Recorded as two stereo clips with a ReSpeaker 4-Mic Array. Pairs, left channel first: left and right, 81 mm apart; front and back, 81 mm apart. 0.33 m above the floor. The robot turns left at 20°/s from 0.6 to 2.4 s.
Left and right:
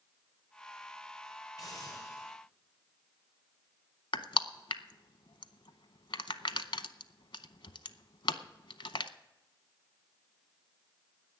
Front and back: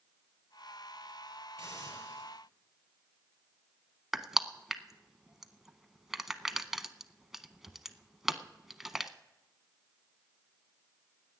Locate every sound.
1.6 s a hiss: 50° left, 8 m; by 2.4 s 35° left, 8 m
4.1 s crushing: 95° left, 0.6 m